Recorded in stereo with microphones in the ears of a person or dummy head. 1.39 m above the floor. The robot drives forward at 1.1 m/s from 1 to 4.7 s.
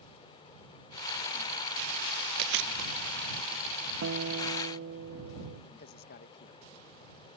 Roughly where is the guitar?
Right.